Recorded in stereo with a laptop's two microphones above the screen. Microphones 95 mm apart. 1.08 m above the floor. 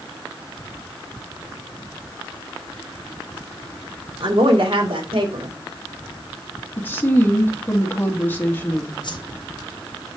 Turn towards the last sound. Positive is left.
turn(degrees=55)  # may be behind; listen again after turning